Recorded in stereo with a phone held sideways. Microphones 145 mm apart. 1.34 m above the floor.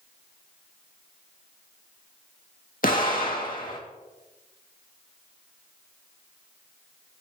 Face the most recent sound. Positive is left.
turn(degrees=75)  # may be behind; listen again after turning